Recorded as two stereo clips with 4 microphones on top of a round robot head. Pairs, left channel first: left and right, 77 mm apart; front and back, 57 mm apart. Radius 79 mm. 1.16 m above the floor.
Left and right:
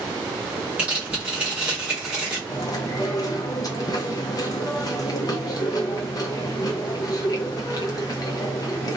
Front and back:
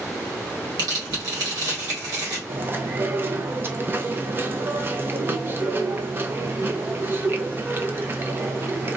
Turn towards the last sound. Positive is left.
turn(degrees=130)